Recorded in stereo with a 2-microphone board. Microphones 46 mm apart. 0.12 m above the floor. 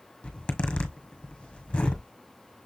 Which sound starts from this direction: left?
A zipper, at 0.2 s.